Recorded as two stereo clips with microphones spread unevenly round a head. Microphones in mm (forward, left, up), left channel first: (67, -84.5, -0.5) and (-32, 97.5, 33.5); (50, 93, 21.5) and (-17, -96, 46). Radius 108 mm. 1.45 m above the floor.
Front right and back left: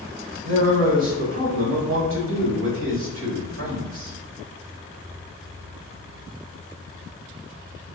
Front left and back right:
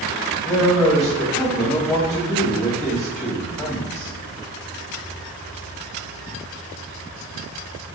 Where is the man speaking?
160° left, 2 m.